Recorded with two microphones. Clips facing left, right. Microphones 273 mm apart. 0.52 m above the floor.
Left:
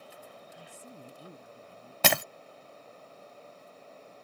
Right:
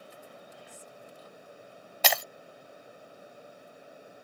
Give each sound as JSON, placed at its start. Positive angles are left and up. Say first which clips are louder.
{"t": 0.6, "sound": "a woman speaking", "louder": "left 1 dB", "side_deg": 80}
{"t": 2.0, "sound": "breaking glass", "louder": "left 3 dB", "side_deg": 65}